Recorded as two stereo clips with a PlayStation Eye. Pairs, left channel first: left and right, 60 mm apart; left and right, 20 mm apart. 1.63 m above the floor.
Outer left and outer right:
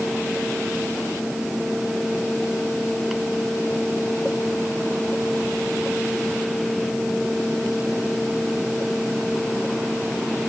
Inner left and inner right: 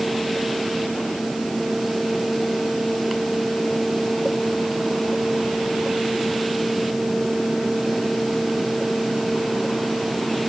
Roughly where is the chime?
No chime in this recording.